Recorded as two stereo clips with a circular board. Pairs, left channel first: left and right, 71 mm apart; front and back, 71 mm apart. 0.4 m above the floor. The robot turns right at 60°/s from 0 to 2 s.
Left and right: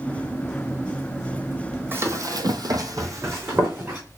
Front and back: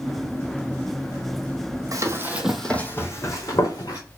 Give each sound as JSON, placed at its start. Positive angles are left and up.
{"t": 1.9, "sound": "running footsteps", "azimuth_deg": -150, "distance_m": 1.1}